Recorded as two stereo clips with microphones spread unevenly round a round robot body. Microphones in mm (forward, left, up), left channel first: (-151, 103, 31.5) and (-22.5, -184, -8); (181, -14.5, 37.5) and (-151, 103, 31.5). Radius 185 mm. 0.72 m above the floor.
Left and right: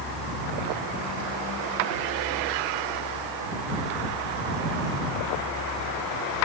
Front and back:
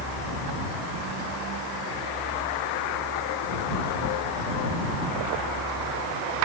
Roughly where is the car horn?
I don't hear a car horn.